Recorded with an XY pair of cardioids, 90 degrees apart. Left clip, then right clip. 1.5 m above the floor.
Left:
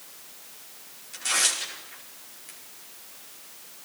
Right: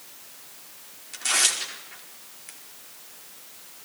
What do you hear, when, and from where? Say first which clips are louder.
1.1 s tearing paper: right 2 dB; 30° right, 4.5 m